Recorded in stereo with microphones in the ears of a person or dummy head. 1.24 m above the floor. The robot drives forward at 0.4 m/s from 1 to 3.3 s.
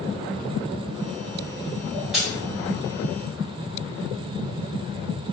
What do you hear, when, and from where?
2.1 s a dropped coin: centre (ahead or behind), 1.3 m